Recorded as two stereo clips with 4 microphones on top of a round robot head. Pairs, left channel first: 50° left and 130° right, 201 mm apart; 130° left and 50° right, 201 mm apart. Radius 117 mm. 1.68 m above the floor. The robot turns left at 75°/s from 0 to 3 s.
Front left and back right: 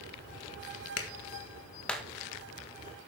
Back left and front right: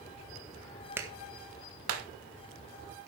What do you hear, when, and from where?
1.0 s a clap: 35° left, 1.8 m; by 2.1 s 50° right, 1.8 m